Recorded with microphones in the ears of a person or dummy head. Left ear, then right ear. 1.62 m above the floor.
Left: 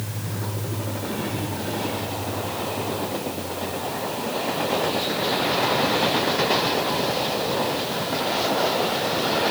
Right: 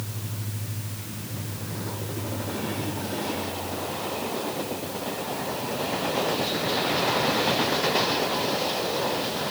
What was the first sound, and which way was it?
Only background noise.